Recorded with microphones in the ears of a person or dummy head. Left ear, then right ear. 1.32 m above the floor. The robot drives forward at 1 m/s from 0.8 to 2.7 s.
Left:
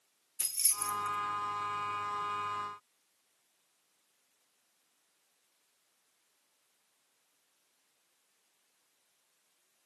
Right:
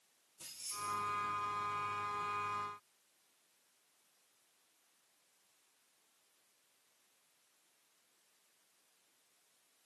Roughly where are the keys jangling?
Left.